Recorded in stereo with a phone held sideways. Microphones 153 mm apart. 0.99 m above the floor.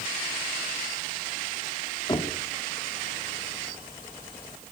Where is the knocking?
30° left (ahead or behind), 2 m.